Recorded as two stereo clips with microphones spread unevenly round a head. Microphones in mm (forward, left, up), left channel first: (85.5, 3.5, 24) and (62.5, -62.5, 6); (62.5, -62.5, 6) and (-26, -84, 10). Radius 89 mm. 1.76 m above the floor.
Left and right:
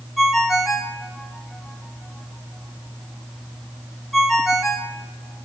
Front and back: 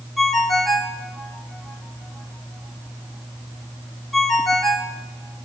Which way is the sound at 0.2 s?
110° left.